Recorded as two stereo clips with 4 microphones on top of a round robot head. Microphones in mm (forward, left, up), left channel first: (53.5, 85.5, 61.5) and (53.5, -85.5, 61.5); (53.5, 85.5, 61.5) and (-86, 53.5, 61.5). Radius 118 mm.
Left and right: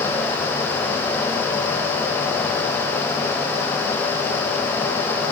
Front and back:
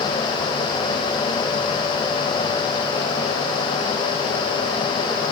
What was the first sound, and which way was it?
Only background noise.